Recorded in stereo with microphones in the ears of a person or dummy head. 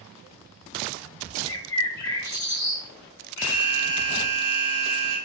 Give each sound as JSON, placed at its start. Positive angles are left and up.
{"t": 1.5, "sound": "a bird", "side_deg": 20, "distance_m": 0.7}
{"t": 3.4, "sound": "an alarm", "side_deg": -20, "distance_m": 2.0}